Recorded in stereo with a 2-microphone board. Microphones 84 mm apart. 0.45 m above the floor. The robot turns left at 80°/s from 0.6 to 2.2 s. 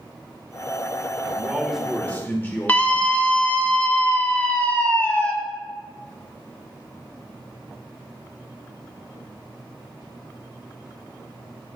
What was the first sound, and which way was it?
A man speaking, 145° right.